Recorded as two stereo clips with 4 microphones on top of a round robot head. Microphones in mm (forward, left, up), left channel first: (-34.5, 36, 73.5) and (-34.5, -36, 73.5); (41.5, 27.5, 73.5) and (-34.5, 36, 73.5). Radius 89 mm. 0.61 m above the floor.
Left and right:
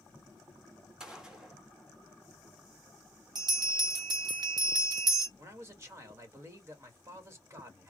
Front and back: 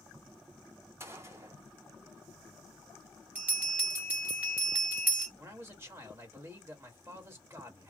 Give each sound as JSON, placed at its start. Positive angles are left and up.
{"t": 1.0, "sound": "a gunshot", "azimuth_deg": -165, "distance_m": 1.4}
{"t": 3.4, "sound": "a bell", "azimuth_deg": -115, "distance_m": 1.0}
{"t": 5.4, "sound": "a man speaking", "azimuth_deg": -135, "distance_m": 1.6}